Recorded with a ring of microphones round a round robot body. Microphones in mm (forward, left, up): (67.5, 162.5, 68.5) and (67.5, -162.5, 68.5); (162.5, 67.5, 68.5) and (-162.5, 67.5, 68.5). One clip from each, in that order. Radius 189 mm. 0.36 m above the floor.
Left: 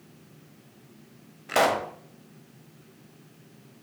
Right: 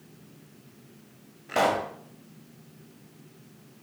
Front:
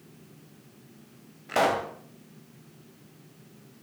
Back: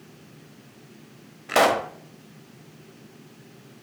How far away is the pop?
About 1.8 m.